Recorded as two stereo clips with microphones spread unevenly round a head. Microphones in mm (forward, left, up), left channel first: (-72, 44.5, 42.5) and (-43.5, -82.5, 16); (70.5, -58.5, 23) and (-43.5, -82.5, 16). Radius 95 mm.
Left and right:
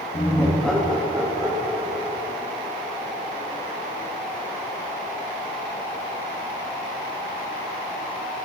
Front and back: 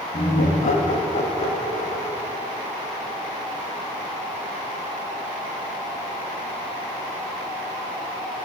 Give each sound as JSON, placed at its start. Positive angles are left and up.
{"t": 0.1, "sound": "laughter", "azimuth_deg": 40, "distance_m": 1.7}